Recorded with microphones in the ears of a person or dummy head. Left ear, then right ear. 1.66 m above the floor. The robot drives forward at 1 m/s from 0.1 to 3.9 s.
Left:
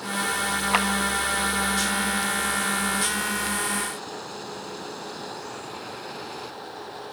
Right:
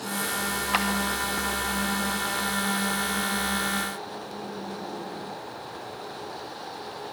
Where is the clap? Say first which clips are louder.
Left 3 dB; 25° left (ahead or behind), 2.5 m; by 0.9 s 20° left (ahead or behind), 2.5 m.